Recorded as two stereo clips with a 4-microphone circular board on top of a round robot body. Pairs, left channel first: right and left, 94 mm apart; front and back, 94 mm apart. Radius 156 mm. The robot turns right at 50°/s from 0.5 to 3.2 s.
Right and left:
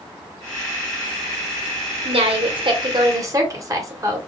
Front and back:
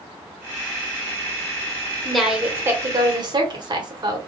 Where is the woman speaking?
85° left, 1.5 m; by 4.2 s 145° left, 1.5 m.